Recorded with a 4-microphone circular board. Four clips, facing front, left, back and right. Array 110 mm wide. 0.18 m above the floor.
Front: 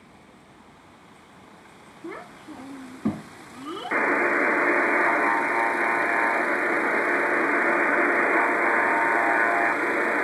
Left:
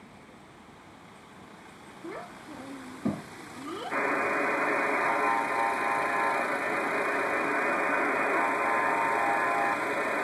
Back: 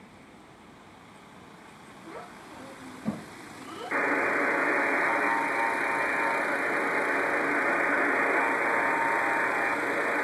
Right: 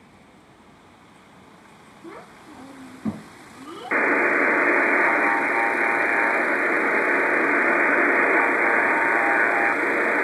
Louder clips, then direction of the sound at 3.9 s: Right 8 dB, front 4 dB; 65° right.